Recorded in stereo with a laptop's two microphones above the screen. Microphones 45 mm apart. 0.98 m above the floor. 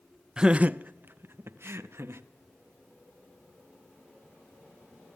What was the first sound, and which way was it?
Laughter, 15° right (ahead or behind).